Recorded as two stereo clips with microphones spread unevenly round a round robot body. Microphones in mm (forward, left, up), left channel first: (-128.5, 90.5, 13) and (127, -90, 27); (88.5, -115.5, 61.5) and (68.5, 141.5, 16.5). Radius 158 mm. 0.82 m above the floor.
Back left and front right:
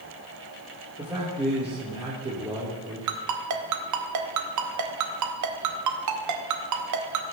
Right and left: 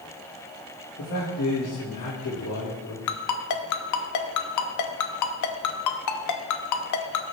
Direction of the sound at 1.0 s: 110° right.